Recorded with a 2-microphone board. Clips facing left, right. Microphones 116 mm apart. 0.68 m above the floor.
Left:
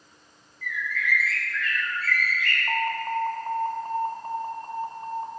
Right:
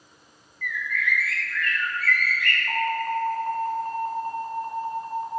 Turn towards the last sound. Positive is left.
turn(degrees=30)  # may be behind; listen again after turning